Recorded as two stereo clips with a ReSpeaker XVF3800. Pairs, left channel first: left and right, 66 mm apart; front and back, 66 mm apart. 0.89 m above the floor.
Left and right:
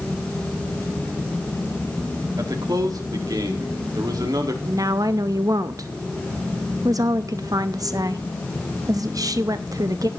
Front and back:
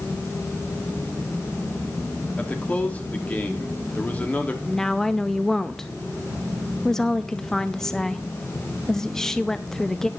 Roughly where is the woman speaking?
Right.